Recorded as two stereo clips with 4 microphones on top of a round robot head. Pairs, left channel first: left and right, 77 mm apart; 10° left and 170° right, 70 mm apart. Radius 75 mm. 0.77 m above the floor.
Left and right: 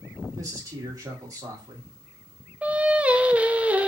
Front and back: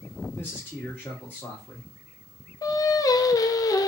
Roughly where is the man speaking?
Ahead right.